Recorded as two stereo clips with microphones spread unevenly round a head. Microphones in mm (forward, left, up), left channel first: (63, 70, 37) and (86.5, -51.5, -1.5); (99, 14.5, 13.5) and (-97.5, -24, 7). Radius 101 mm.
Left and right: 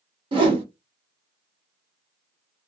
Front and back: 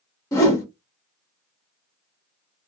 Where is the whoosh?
40° right, 0.7 m.